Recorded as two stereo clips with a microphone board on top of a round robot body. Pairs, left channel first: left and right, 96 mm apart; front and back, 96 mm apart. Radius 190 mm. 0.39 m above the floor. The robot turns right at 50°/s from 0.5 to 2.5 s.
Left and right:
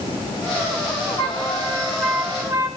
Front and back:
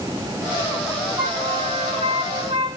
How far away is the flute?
About 7.5 m.